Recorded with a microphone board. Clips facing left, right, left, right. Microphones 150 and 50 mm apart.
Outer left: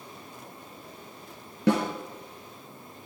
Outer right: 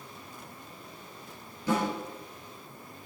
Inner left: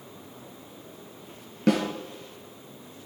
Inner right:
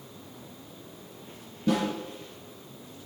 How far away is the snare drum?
About 4 m.